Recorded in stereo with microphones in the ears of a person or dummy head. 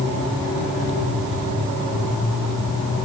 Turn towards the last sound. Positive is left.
No sound to turn to.